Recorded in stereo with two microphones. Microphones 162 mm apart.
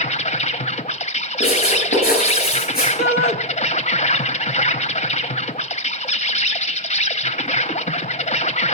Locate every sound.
0.0 s an insect: 45° left (ahead or behind), 0.8 m
1.4 s writing: 65° left (ahead or behind), 9 m
3.0 s a shout: 90° left, 1.0 m